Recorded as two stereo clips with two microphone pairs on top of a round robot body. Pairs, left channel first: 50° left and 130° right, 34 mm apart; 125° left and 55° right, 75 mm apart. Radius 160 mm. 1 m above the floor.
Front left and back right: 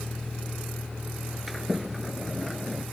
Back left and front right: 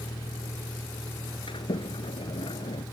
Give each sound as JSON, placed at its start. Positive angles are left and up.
{"t": 0.0, "sound": "a vehicle", "azimuth_deg": 125}
{"t": 1.5, "sound": "a sliding door", "azimuth_deg": 140}